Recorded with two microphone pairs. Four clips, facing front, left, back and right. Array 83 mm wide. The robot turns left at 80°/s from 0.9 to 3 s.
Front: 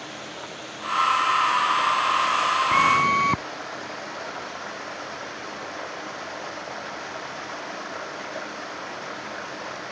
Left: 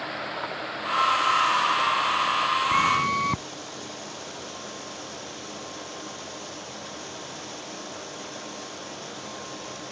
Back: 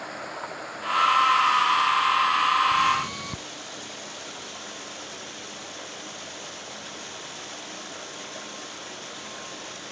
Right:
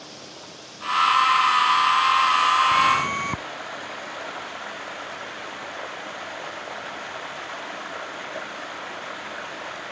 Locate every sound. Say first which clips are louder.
0.0 s running water: left 10 dB, back 2 dB; 120° left; by 9.9 s 45° right
2.7 s a flute: right 2 dB, front 4 dB; 15° left; by 3.4 s 10° right